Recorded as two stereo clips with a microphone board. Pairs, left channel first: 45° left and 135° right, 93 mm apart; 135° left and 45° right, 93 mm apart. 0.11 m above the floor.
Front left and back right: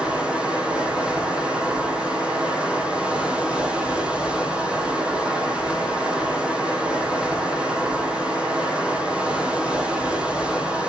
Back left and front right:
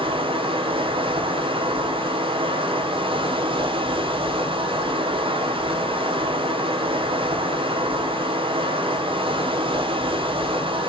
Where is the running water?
55° right, 3 m.